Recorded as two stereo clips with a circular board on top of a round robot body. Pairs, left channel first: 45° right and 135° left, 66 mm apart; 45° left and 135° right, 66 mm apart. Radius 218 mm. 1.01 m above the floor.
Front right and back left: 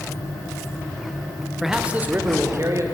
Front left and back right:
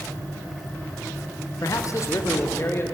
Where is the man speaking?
50° left, 1.0 m; by 2.8 s 95° left, 1.5 m.